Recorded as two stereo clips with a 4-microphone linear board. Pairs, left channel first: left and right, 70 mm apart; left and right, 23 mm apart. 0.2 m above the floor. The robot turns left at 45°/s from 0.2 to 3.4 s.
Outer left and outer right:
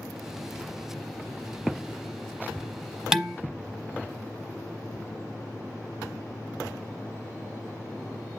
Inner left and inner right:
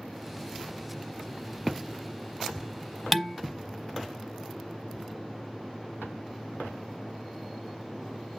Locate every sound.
3.1 s dishes clattering: 10° right (ahead or behind), 0.9 m; by 3.4 s 5° right (ahead or behind), 0.9 m